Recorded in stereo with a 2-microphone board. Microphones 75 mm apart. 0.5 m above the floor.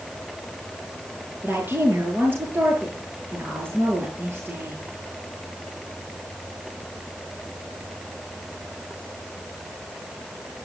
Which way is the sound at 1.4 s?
25° right (ahead or behind).